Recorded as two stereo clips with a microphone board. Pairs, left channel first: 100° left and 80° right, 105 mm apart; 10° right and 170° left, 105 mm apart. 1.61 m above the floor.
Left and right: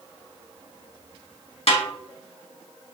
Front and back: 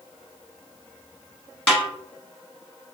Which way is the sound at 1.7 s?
70° left.